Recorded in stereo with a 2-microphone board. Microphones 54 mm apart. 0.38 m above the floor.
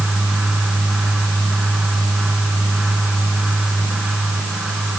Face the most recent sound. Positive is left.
No sound to turn to.